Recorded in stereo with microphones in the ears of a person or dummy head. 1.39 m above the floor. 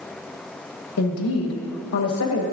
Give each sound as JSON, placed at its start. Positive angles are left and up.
{"t": 1.0, "sound": "a woman speaking", "side_deg": 80, "distance_m": 1.2}